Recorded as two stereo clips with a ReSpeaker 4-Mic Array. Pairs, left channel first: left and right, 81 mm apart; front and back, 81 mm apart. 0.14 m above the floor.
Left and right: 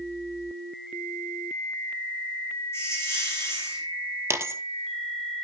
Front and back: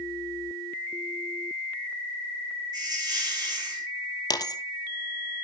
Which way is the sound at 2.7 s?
145° left.